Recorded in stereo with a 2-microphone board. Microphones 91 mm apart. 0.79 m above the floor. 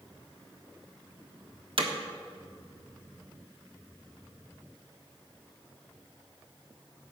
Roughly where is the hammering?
Right.